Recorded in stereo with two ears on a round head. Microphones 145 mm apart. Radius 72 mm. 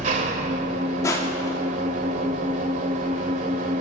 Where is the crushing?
20° left (ahead or behind), 3.5 m.